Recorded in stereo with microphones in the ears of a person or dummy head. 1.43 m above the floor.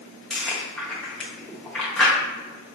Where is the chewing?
5° left (ahead or behind), 0.8 m.